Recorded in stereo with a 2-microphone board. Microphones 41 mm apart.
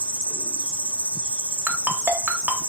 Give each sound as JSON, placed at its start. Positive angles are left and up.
{"t": 0.0, "sound": "an insect", "side_deg": 30, "distance_m": 1.1}
{"t": 1.7, "sound": "a ringtone", "side_deg": -40, "distance_m": 0.5}